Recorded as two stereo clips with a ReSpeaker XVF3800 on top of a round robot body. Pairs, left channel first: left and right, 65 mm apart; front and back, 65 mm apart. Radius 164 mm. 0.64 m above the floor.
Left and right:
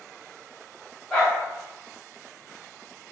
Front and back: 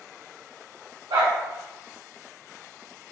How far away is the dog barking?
About 0.9 m.